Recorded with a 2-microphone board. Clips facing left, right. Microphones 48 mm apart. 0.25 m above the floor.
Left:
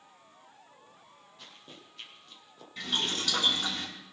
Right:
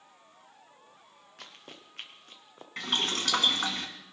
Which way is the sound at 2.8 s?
55° right (ahead or behind).